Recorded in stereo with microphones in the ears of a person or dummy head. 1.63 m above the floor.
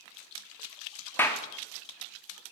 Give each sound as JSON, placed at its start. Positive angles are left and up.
{"t": 1.2, "sound": "a clap", "side_deg": 15, "distance_m": 0.6}